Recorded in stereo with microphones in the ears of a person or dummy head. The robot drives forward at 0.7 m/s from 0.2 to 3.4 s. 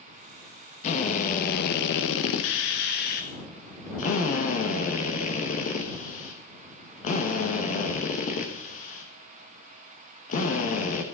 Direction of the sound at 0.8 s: 40° left (ahead or behind).